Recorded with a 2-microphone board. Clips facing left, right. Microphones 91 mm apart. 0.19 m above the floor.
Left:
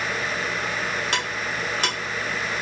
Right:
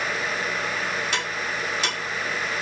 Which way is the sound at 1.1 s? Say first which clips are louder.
Left 1 dB; 55° left (ahead or behind).